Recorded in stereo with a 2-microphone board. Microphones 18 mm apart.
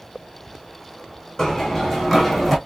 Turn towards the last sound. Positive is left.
turn(degrees=5)  # may be behind; listen again after turning